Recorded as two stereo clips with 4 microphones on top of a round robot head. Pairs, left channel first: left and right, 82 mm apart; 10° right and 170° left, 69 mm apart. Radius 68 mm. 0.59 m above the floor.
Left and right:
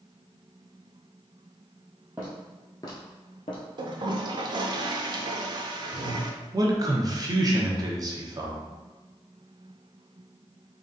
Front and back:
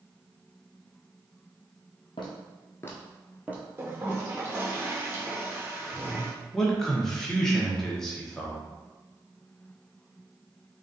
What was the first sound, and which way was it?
Footsteps, 20° right.